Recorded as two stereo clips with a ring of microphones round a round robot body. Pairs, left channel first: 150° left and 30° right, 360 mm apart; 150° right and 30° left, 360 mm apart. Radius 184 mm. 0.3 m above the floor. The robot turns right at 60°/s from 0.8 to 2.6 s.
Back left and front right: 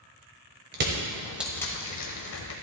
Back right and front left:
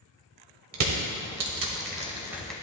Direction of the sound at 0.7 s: 20° left.